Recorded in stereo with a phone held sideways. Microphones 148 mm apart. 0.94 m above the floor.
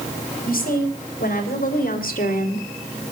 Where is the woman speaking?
80° left, 5.5 m; by 2.7 s 75° left (ahead or behind), 2.5 m.